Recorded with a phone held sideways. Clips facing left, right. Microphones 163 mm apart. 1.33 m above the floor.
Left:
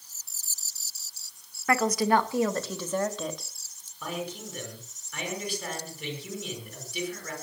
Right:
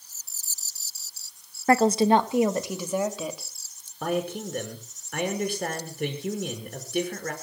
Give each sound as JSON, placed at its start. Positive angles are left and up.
{"t": 1.7, "sound": "a woman speaking", "side_deg": -30, "distance_m": 1.5}
{"t": 4.0, "sound": "a man speaking", "side_deg": -50, "distance_m": 5.5}